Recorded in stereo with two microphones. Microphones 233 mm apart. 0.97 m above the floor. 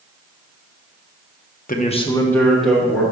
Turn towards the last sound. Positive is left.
turn(degrees=-5)  # may be behind; listen again after turning